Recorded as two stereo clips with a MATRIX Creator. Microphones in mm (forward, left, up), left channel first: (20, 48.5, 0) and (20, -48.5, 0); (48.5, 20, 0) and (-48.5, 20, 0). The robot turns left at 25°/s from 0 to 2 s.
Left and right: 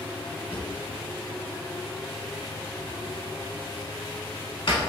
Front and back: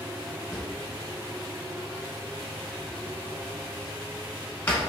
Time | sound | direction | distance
0.5 | a drawer | 95° left | 1.2 m